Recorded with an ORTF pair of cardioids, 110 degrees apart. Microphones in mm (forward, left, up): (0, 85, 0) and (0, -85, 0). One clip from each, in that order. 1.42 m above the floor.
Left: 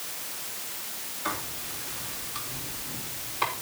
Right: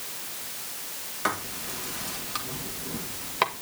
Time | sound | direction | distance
1.2 | writing | 70° right | 2 m